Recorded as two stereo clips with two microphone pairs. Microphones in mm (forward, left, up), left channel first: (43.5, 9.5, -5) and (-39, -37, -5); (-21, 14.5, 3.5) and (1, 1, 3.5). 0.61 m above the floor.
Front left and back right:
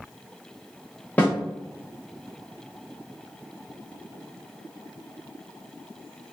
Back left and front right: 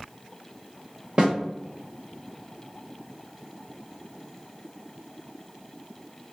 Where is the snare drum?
40° right, 1.2 m.